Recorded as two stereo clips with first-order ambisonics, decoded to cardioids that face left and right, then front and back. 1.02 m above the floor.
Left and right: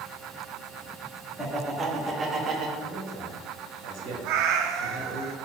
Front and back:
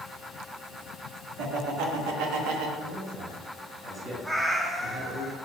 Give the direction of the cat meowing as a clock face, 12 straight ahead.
3 o'clock.